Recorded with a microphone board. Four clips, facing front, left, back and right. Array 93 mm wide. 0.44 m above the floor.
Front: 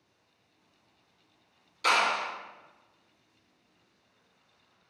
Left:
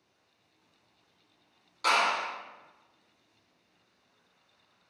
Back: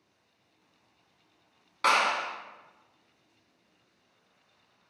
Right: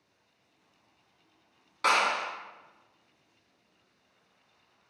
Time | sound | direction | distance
1.8 | a clap | 155° right | 3 m